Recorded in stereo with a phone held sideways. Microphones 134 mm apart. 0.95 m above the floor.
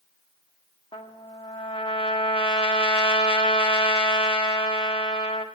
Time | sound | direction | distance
0.9 | a trumpet | 40° left (ahead or behind) | 1.5 m